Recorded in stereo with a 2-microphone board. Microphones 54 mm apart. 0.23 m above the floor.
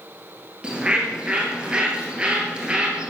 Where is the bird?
20° right (ahead or behind), 2.5 m.